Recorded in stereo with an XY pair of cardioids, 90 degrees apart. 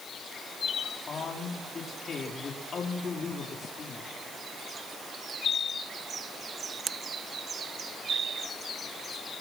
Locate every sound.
1.1 s a man speaking: 50° left, 4 m